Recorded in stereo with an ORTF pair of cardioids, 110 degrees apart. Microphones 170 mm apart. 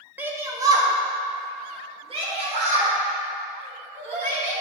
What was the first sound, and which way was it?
A shout, 10° right.